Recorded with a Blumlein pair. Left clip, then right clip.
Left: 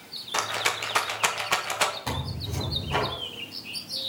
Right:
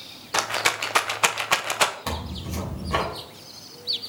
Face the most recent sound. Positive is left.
turn(degrees=-15)